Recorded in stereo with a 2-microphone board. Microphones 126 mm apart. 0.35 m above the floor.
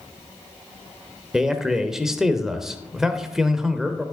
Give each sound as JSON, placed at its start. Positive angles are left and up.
{"t": 1.3, "sound": "a man speaking", "side_deg": -5, "distance_m": 0.8}